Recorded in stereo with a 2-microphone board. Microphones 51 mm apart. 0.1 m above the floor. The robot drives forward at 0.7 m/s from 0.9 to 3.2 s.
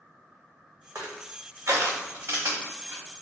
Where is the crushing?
85° right, 1.0 m; by 3.0 s 35° right (ahead or behind), 1.7 m.